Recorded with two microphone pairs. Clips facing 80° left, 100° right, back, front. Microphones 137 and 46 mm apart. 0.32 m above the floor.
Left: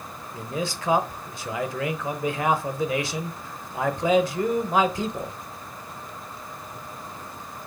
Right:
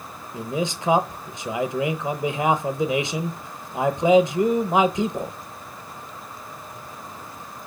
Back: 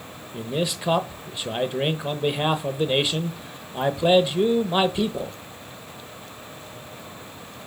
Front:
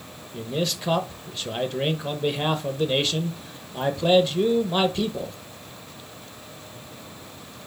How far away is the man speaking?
About 0.8 m.